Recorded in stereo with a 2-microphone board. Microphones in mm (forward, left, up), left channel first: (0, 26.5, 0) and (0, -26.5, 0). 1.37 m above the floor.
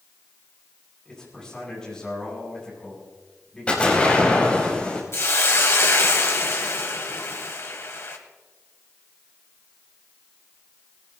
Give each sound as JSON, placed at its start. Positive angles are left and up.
{"t": 1.1, "sound": "a man speaking", "side_deg": 15, "distance_m": 9.5}
{"t": 3.7, "sound": "an explosion", "side_deg": 20, "distance_m": 4.0}
{"t": 5.1, "sound": "a hiss", "side_deg": 55, "distance_m": 1.9}